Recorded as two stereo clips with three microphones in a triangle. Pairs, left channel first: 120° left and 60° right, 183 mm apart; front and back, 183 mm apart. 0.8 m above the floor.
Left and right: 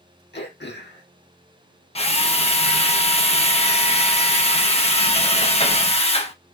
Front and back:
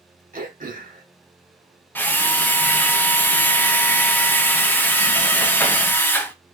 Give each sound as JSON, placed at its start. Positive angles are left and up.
{"t": 0.3, "sound": "throat clearing", "azimuth_deg": 140, "distance_m": 1.1}
{"t": 1.9, "sound": "a drill", "azimuth_deg": 75, "distance_m": 0.7}